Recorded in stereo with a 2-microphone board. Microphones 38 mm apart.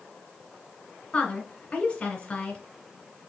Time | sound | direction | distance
1.1 | a woman speaking | 35° left (ahead or behind) | 2 m